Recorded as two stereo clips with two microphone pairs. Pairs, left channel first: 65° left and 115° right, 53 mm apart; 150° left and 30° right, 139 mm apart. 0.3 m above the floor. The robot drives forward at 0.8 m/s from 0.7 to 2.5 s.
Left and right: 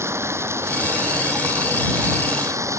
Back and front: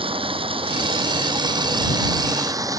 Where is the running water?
80° right; by 2.8 s 95° right.